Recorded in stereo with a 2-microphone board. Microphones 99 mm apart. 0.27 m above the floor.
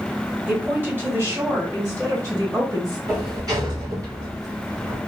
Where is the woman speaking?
15° right (ahead or behind), 1.8 m; by 3.0 s 40° right (ahead or behind), 2 m.